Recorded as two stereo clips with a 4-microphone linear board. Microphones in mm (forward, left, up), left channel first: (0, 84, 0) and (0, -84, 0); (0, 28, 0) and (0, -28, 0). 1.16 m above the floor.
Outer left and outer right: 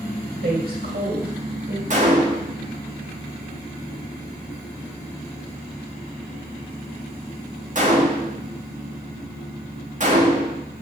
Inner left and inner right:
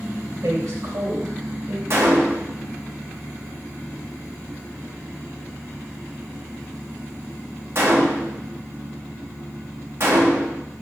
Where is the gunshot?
45° right (ahead or behind), 1.4 m.